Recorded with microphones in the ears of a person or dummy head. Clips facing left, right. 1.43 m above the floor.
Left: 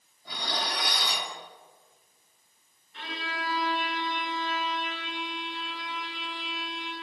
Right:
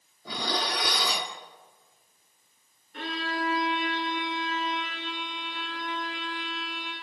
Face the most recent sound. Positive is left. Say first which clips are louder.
# right 6 dB
turn(degrees=-45)  # may be behind; listen again after turning